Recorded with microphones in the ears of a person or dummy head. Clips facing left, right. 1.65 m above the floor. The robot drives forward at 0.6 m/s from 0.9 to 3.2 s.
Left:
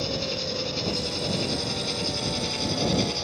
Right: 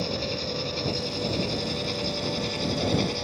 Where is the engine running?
5° left (ahead or behind).